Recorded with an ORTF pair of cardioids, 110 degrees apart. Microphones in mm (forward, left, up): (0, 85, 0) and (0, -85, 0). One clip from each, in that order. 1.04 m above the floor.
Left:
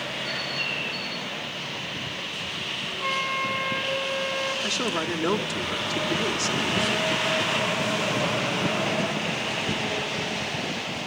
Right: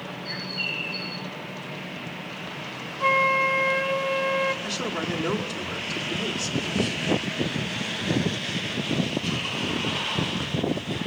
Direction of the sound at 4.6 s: 20° left.